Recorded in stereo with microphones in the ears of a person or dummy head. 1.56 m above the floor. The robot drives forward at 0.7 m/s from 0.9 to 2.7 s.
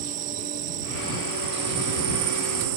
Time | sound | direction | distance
0.0 | an insect | 40° right (ahead or behind) | ?